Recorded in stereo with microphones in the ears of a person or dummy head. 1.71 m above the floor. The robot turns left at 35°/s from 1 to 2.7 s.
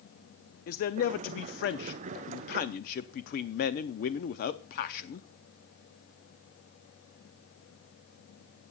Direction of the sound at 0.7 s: 115° left.